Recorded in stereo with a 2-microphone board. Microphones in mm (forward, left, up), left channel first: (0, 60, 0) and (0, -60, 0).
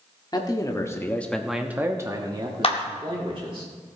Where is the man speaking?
35° left (ahead or behind), 1.4 m; by 3.6 s 45° right (ahead or behind), 2 m.